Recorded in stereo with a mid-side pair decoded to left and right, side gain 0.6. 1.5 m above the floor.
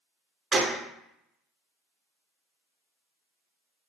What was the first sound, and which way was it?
A gunshot, 30° right.